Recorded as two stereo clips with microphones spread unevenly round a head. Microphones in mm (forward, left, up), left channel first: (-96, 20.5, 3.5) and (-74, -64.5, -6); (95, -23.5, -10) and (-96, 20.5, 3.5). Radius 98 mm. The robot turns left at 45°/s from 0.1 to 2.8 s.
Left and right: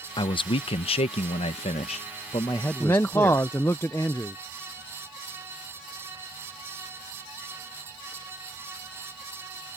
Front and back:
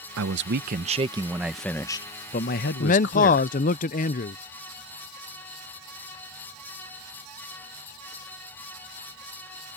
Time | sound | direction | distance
0.2 | a man speaking | 140° left | ?
2.8 | a man speaking | 30° left | ?